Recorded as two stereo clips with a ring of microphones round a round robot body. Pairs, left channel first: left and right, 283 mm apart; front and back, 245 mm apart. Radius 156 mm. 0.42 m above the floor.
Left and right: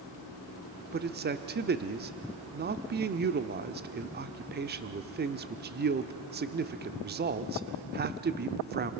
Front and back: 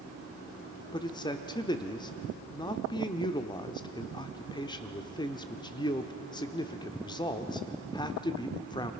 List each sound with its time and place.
0.9 s a man speaking: 60° right, 0.9 m